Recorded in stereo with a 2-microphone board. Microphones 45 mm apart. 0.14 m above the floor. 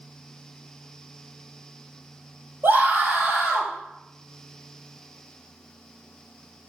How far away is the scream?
About 3 m.